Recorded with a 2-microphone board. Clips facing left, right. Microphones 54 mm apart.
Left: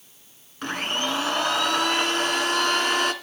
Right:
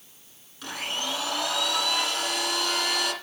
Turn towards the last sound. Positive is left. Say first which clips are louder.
# left 5 dB
turn(degrees=40)  # may be behind; listen again after turning